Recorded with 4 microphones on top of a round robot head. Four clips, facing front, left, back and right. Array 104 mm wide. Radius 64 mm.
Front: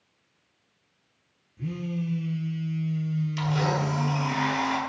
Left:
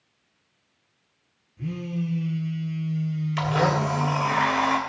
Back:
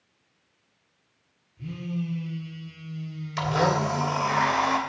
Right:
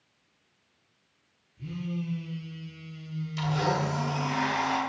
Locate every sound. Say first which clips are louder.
1.6 s a phone buzzing: left 5 dB, front 1 dB; 45° left, 3.5 m
3.4 s a blender: left 5 dB, back 5 dB; 130° left, 2.5 m